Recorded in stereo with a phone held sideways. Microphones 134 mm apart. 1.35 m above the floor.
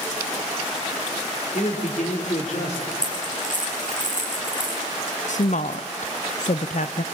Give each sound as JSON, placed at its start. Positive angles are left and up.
{"t": 1.5, "sound": "a man speaking", "side_deg": 60, "distance_m": 4.5}
{"t": 2.9, "sound": "a dropped coin", "side_deg": 80, "distance_m": 4.5}
{"t": 5.3, "sound": "a woman speaking", "side_deg": 65, "distance_m": 0.7}